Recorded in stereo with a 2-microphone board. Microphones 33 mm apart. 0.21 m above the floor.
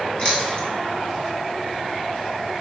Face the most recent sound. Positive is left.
turn(degrees=35)  # may be behind; listen again after turning